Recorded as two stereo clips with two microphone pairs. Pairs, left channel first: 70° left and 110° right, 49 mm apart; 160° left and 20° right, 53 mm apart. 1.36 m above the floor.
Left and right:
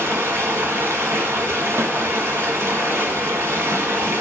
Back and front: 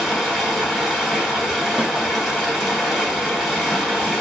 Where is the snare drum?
95° right, 0.7 m.